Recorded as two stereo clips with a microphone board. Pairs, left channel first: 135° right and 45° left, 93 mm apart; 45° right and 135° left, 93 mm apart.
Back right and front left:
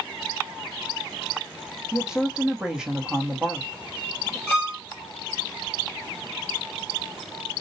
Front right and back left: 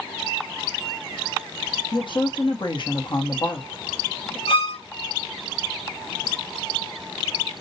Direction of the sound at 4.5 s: 60° right.